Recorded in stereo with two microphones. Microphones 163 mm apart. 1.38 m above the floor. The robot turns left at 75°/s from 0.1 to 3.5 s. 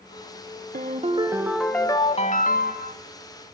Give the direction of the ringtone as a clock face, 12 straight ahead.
4 o'clock.